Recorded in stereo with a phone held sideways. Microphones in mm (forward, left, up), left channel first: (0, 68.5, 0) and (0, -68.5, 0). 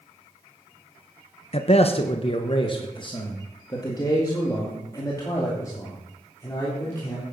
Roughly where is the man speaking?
Left.